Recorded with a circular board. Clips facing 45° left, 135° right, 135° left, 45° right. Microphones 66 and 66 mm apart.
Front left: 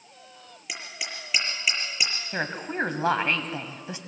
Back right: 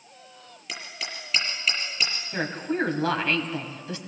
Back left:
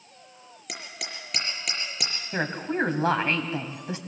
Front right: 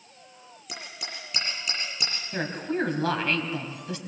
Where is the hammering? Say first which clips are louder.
Even, back left 1 dB; 120° left, 5.5 m.